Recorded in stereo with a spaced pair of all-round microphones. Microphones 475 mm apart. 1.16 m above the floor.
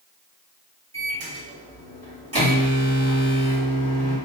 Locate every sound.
0.9 s a microwave: 30° right (ahead or behind), 1.4 m